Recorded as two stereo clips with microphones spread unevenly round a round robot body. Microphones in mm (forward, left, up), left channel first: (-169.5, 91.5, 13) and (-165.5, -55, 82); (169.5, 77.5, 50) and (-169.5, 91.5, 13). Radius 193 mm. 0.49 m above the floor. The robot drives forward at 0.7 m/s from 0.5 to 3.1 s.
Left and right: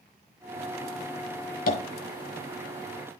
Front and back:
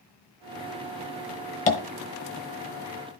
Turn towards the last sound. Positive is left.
turn(degrees=115)